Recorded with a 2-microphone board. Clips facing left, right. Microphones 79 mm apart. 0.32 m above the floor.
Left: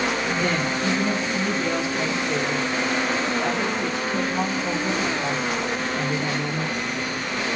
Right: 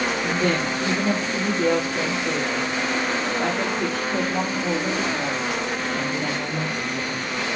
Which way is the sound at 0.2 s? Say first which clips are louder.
Right 1 dB; 55° right (ahead or behind).